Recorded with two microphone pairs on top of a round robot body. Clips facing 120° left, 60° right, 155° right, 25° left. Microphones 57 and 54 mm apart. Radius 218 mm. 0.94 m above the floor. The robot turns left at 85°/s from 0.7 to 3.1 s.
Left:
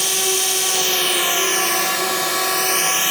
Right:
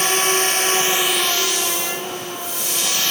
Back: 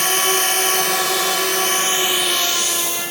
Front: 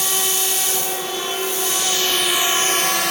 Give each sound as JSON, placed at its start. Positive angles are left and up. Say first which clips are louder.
{"t": 0.0, "sound": "a drone", "louder": "right 4 dB, back 6 dB", "azimuth_deg": -110}